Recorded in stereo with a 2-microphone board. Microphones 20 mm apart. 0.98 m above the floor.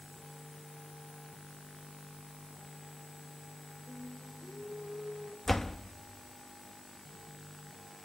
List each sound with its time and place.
3.9 s singing: 60° left (ahead or behind), 3 m
5.5 s a door slam: 20° left (ahead or behind), 0.7 m